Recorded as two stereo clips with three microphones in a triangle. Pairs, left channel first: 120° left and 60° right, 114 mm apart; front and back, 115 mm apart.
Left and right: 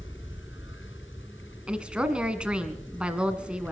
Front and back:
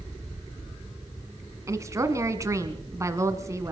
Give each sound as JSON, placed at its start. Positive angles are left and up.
{"t": 1.7, "sound": "a woman speaking", "azimuth_deg": -135, "distance_m": 1.5}